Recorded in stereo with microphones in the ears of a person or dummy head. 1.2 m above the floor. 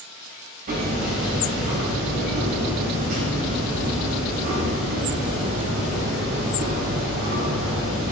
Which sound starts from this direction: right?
Hammering, at 0.7 s.